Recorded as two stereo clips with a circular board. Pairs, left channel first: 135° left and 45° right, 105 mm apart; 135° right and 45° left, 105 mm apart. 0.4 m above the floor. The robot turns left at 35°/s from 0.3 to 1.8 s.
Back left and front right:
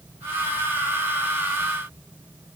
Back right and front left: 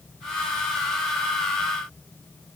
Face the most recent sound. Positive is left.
No sound to turn to.